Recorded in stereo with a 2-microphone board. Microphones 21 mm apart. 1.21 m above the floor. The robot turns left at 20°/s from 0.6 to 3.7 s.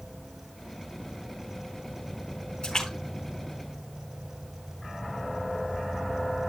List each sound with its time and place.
2.6 s a splash: 40° left (ahead or behind), 4.5 m; by 4.7 s 20° left (ahead or behind), 4.5 m